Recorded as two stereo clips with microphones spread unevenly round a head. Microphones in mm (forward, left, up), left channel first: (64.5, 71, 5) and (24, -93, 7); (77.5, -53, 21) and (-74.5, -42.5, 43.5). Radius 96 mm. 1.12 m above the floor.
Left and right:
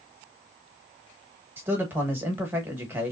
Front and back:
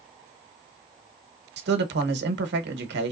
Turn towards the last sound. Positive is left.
turn(degrees=175)